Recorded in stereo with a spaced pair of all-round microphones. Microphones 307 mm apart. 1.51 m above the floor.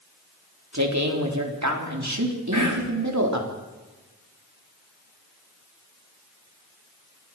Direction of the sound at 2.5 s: 70° right (ahead or behind).